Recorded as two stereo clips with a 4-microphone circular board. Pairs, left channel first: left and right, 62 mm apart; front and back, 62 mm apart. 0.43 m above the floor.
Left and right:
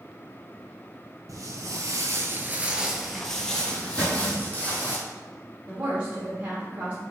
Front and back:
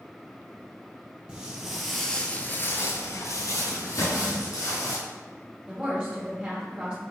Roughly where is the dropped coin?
No dropped coin in this recording.